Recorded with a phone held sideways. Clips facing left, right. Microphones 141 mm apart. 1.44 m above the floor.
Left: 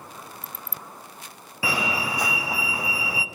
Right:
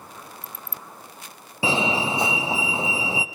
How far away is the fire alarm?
About 0.7 m.